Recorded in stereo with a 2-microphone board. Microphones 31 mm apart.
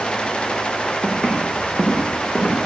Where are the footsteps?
30° left (ahead or behind), 5 m; by 2.6 s 35° left (ahead or behind), 6.5 m.